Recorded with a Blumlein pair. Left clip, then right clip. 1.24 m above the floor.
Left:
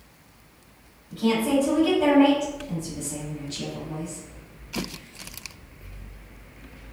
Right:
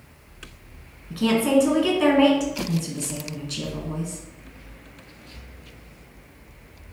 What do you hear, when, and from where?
1.1 s a woman speaking: 55° right, 1.2 m